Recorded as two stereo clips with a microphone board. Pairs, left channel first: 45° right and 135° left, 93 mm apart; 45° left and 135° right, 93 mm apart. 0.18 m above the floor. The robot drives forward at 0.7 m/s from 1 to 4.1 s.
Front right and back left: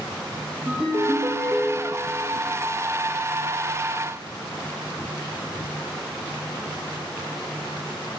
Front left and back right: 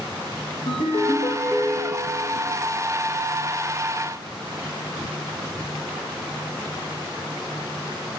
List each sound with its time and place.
0.7 s a ringtone: 75° left, 4.5 m; by 2.3 s 85° left, 4.5 m